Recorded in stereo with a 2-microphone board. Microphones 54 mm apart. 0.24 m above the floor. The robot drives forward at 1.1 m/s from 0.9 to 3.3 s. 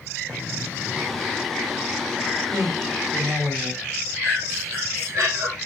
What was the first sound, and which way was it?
An explosion, 40° right (ahead or behind).